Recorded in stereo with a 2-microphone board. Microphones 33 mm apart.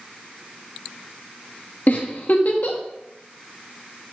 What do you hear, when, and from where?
1.9 s a giggle: 50° left (ahead or behind), 1.4 m